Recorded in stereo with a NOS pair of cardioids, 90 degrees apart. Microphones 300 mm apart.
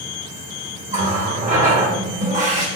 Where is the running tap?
25° right, 3 m.